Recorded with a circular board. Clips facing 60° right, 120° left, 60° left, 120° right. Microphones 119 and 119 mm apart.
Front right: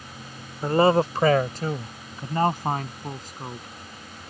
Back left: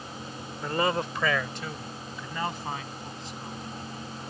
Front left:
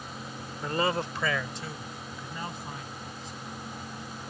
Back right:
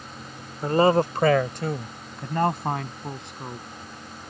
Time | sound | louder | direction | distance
0.6 | a man speaking | front right 8 dB, back right 10 dB | 95° right | ?